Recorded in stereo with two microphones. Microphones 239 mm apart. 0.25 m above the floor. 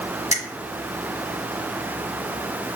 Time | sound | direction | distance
0.3 | a finger snap | 30° left (ahead or behind) | 1.1 m